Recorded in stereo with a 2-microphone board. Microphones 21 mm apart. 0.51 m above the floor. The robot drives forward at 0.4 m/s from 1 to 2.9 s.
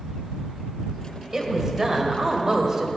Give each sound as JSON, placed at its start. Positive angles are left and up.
{"t": 1.3, "sound": "a woman speaking", "side_deg": -20, "distance_m": 1.8}